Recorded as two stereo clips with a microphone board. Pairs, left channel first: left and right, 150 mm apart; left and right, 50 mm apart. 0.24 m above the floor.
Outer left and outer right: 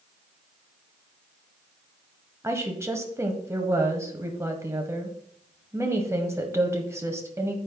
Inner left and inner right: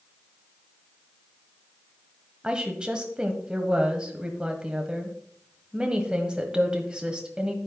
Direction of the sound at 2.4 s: 15° right (ahead or behind).